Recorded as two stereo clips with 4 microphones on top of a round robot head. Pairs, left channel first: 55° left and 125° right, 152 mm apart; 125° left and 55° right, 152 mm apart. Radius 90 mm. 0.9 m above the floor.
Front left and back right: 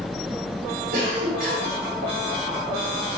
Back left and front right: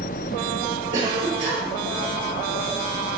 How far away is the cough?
About 3 m.